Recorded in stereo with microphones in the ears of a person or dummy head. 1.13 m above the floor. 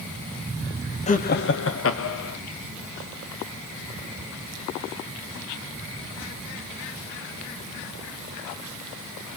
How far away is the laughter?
About 1.2 m.